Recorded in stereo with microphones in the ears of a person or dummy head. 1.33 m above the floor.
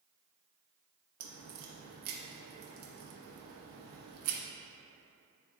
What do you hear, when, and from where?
1.2 s a crack: 70° right (ahead or behind), 1.1 m